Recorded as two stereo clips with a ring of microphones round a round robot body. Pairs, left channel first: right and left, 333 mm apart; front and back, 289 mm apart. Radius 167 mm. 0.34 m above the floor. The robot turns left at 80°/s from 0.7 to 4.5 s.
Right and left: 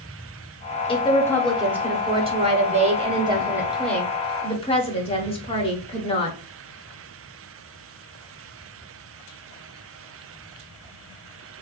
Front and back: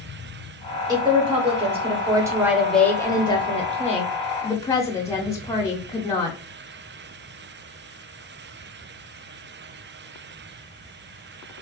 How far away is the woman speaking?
About 0.9 m.